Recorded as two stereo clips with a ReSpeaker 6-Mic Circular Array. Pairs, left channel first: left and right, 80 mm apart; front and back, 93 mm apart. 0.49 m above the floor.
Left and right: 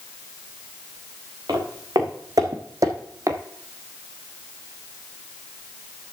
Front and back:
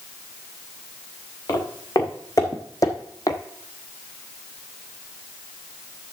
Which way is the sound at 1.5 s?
50° right.